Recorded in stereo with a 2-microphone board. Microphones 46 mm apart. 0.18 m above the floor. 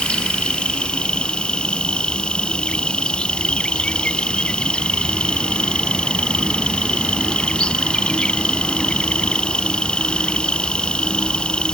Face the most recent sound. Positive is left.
turn(degrees=20)  # may be behind; listen again after turning